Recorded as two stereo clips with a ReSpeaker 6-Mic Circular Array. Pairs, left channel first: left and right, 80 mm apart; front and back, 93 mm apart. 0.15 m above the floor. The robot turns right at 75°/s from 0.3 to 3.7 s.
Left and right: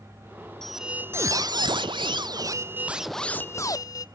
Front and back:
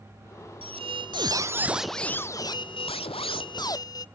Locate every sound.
0.6 s a squeak: 175° left, 0.5 m; by 4.0 s 45° left, 0.5 m